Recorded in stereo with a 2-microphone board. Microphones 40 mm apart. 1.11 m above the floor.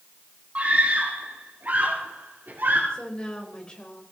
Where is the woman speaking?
25° left (ahead or behind), 4.5 m.